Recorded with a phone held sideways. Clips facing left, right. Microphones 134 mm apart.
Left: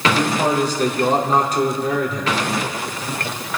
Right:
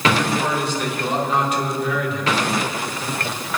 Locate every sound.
0.1 s a man speaking: 40° left (ahead or behind), 4 m